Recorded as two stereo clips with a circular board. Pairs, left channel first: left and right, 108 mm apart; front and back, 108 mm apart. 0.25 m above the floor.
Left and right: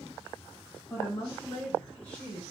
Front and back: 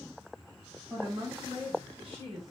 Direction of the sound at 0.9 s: 145° left.